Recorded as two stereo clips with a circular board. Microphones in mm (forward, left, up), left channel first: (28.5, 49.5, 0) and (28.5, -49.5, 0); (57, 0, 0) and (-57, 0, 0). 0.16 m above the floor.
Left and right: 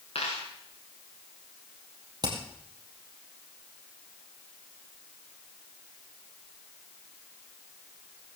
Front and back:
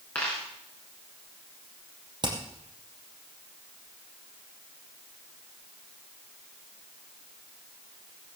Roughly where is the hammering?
Behind right.